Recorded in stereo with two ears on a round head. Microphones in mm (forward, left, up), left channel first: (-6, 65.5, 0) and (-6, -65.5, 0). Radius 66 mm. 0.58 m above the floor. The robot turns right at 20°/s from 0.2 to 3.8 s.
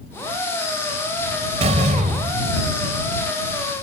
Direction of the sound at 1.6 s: 45° right (ahead or behind).